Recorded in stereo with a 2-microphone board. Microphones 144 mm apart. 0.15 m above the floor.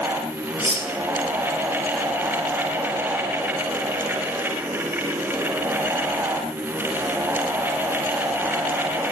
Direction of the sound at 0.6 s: 35° left (ahead or behind).